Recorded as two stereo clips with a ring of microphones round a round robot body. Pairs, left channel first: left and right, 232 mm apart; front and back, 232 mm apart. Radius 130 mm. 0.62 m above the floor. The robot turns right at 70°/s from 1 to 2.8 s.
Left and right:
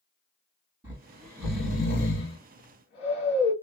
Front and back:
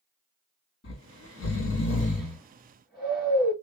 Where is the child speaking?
I don't hear a child speaking.